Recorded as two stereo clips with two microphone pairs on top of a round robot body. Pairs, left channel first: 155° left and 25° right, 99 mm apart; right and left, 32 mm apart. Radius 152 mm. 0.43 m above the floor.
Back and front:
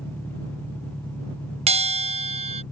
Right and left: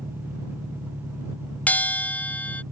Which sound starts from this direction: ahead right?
A bell, at 1.7 s.